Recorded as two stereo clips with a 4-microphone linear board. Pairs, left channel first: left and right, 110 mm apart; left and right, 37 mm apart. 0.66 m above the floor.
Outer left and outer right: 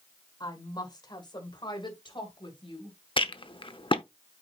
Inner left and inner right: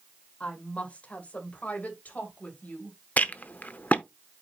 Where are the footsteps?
No footsteps in this recording.